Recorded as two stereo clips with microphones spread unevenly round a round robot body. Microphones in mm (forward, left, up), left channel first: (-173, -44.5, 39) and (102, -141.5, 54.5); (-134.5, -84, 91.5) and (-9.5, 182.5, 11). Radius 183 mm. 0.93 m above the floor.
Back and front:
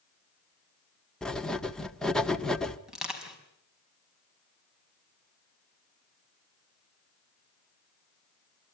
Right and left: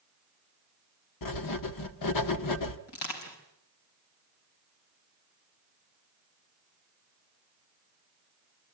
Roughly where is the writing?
Right.